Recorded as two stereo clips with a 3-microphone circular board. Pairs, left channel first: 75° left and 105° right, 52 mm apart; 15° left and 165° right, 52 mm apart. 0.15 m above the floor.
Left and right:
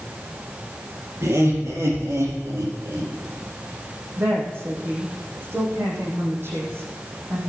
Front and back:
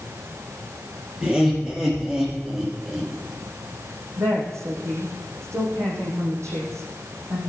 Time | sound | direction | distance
1.2 | laughter | 105° right | 4 m
4.2 | a woman speaking | 145° right | 5.5 m